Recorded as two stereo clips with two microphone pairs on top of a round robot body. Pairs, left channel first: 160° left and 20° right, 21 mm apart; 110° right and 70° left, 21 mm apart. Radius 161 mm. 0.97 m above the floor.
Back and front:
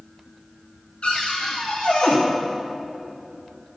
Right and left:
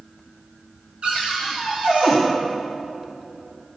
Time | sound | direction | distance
1.0 | a cupboard door | 115° left | 0.9 m